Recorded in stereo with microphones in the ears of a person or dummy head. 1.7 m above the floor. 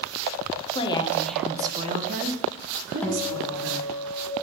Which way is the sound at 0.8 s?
35° left (ahead or behind).